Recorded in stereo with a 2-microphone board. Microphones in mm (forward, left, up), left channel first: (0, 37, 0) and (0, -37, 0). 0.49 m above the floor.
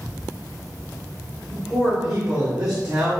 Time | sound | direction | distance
1.5 | a man speaking | 10° right (ahead or behind) | 1.5 m